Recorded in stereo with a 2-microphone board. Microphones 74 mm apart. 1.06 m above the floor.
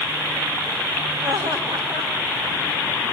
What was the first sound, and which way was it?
Laughter, 70° right (ahead or behind).